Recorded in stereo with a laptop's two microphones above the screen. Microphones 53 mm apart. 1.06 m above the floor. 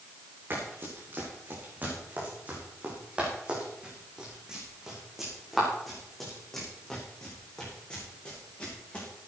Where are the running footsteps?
40° right (ahead or behind), 5 m; by 9.1 s 25° left (ahead or behind), 5.5 m.